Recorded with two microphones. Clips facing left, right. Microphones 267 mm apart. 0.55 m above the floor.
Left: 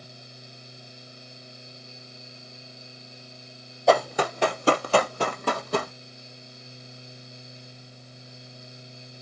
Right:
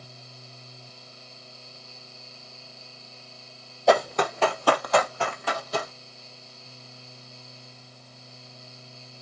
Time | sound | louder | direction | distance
3.9 | running footsteps | even | centre (ahead or behind) | 1.1 m